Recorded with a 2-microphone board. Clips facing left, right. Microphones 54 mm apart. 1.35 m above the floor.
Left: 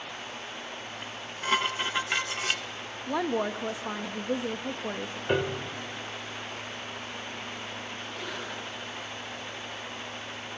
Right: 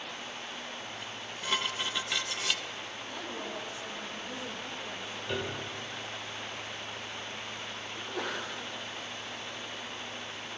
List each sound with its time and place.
1.0 s dishes clattering: 30° left (ahead or behind), 0.6 m
3.1 s a woman speaking: 80° left, 1.4 m
5.3 s a piano: 40° left (ahead or behind), 2 m
8.0 s a sneeze: 80° right, 5 m